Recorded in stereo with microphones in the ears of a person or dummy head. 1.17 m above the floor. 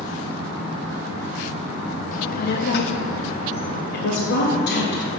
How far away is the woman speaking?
About 1.3 m.